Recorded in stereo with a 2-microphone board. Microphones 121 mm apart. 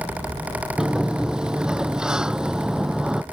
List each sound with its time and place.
0.8 s a sliding door: 5° right (ahead or behind)